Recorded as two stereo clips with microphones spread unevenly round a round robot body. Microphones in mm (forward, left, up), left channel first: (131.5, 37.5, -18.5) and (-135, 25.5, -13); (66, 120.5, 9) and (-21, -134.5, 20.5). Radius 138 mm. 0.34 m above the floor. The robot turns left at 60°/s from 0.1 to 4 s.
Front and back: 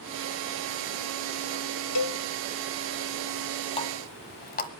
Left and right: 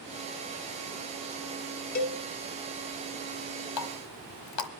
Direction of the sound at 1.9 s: 10° left.